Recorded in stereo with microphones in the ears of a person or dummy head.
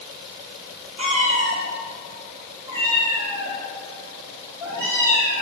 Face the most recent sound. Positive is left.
turn(degrees=-10)  # may be behind; listen again after turning